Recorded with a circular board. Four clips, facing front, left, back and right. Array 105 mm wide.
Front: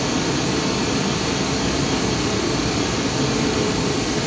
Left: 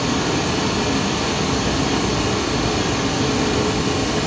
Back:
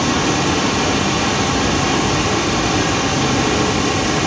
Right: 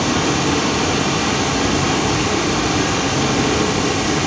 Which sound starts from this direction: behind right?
Running water, at 0.0 s.